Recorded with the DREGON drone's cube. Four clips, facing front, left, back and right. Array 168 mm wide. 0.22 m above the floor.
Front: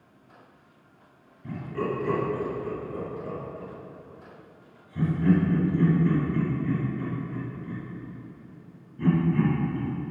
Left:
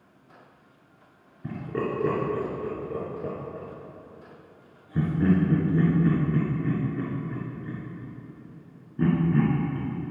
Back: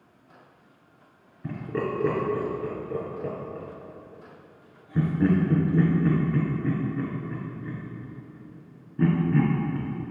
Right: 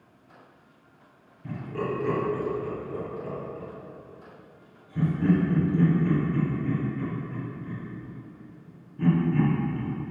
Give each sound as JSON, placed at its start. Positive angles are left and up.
{"t": 1.4, "sound": "laughter", "azimuth_deg": 145, "distance_m": 3.0}